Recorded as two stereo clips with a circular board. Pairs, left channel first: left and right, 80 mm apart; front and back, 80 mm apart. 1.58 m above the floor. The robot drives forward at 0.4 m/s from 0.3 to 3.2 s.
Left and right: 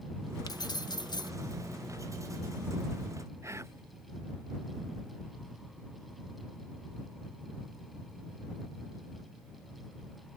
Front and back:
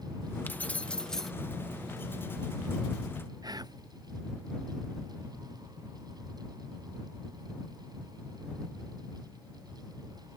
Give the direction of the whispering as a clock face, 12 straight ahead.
5 o'clock.